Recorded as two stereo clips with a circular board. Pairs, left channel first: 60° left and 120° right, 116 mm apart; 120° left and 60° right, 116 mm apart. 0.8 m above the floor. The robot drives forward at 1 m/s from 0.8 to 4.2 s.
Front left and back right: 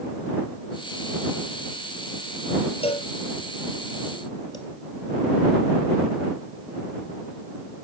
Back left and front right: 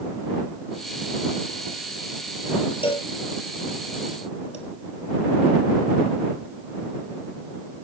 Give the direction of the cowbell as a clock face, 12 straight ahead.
9 o'clock.